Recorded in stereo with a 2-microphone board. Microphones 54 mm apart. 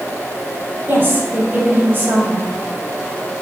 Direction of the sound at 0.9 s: 40° right (ahead or behind).